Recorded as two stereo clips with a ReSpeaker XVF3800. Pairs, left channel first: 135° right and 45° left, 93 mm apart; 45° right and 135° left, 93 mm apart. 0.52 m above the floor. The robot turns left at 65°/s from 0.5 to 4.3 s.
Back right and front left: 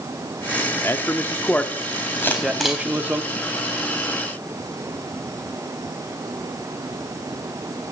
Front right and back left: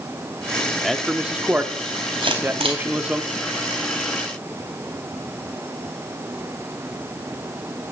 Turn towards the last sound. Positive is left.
turn(degrees=25)